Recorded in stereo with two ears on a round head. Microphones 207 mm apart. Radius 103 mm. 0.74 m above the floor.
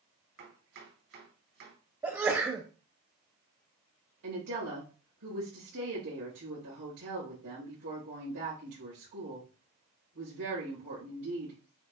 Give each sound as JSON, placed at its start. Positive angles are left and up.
{"t": 0.4, "sound": "chopping", "side_deg": -65, "distance_m": 2.5}
{"t": 2.0, "sound": "a sneeze", "side_deg": -15, "distance_m": 0.6}
{"t": 4.2, "sound": "a woman speaking", "side_deg": -75, "distance_m": 3.0}